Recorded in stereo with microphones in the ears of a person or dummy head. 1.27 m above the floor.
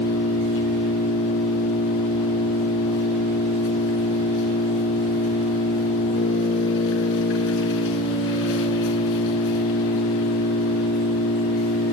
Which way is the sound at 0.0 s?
70° left (ahead or behind).